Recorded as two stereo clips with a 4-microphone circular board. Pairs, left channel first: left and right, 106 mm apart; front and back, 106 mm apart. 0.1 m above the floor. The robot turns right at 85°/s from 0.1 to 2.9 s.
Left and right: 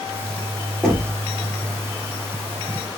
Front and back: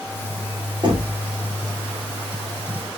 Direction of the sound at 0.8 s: 170° left.